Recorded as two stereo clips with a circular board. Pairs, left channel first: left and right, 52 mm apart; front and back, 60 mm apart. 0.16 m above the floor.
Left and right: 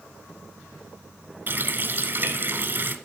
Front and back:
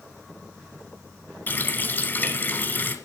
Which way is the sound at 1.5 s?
50° right.